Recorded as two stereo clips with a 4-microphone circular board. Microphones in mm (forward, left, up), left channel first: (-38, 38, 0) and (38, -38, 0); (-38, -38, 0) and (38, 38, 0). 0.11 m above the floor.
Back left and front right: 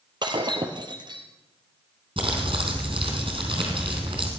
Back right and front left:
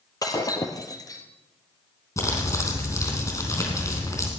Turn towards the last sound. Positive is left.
turn(degrees=-75)